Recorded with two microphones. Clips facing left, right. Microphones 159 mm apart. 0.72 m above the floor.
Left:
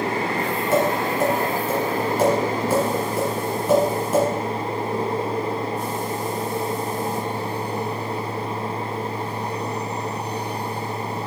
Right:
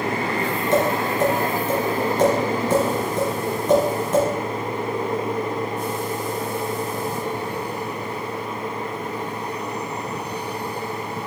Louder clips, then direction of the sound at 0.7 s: Even; 10° left (ahead or behind).